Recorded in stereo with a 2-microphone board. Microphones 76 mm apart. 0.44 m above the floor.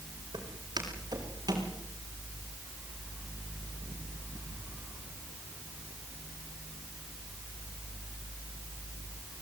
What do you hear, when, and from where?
0.3 s footsteps: 65° right (ahead or behind), 8 m; by 1.7 s 55° right (ahead or behind), 8 m